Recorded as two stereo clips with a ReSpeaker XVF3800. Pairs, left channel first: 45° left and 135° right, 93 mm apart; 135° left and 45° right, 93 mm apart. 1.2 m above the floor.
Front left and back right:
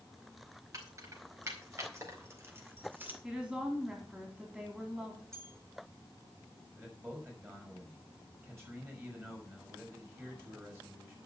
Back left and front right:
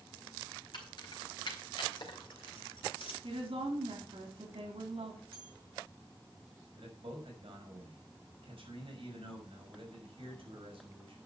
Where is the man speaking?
70° right, 6.5 m.